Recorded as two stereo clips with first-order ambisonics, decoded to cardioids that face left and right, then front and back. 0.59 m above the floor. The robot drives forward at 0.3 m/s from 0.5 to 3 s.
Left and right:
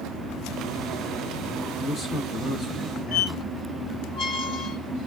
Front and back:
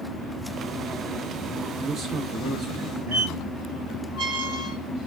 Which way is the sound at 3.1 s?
140° left.